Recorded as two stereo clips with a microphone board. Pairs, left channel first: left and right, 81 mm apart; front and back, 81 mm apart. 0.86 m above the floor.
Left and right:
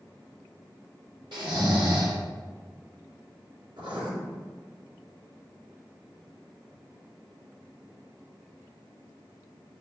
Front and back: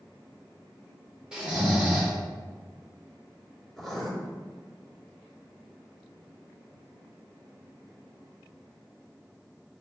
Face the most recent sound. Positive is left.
turn(degrees=-90)